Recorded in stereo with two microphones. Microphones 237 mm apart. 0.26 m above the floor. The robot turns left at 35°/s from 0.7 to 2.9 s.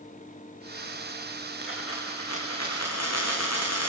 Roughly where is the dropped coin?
Behind left.